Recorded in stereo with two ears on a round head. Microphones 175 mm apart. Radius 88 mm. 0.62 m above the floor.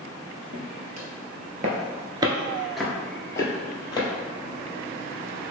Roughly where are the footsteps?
Right.